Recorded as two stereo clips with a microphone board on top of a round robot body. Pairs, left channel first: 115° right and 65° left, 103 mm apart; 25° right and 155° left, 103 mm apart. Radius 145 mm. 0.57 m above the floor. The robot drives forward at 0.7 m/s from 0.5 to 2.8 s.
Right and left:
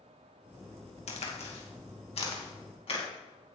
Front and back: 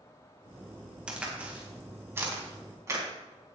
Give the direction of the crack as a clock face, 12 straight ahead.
4 o'clock.